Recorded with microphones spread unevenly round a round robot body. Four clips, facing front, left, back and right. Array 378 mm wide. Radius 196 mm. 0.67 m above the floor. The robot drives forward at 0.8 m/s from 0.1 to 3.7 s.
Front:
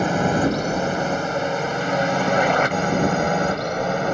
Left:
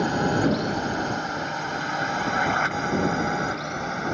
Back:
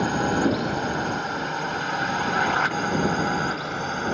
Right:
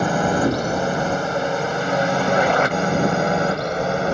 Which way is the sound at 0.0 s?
50° right.